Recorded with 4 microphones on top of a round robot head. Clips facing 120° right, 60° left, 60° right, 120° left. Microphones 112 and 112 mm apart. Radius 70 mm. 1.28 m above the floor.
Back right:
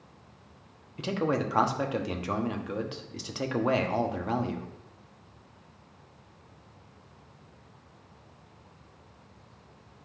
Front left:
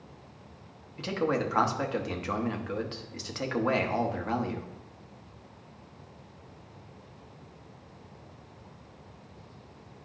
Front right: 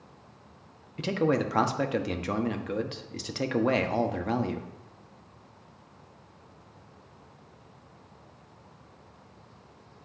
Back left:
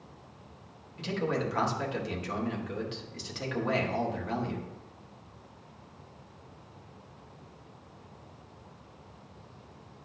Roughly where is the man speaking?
Ahead right.